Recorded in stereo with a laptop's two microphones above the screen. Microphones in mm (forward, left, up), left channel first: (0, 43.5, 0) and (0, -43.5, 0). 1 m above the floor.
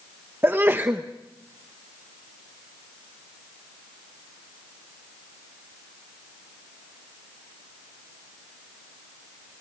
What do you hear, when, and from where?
0.4 s a sneeze: 25° right (ahead or behind), 0.8 m